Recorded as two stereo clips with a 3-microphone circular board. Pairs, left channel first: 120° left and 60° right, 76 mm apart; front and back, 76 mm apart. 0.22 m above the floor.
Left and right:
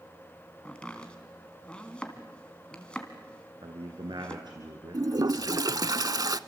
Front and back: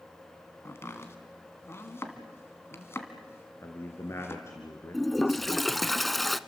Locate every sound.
0.7 s chopping: 45° left, 2.5 m
3.6 s a man speaking: 55° right, 2.5 m
4.9 s a toilet flushing: 90° right, 0.6 m